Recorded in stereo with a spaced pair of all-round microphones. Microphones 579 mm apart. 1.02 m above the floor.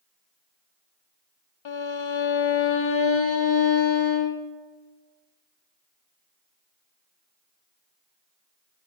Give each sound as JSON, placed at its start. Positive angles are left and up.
{"t": 1.6, "sound": "a violin", "side_deg": 50, "distance_m": 0.7}